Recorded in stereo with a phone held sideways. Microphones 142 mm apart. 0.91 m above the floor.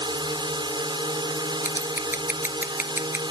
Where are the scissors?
15° right (ahead or behind).